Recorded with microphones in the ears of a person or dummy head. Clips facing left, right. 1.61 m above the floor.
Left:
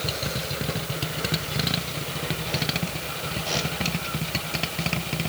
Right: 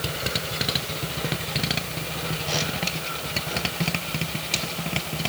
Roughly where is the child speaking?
No child speaking in this recording.